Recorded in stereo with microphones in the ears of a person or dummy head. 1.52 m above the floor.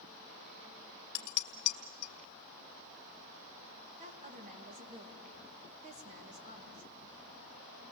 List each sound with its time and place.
1.1 s dishes clattering: 50° left (ahead or behind), 1.2 m
4.0 s a woman speaking: 35° right (ahead or behind), 2 m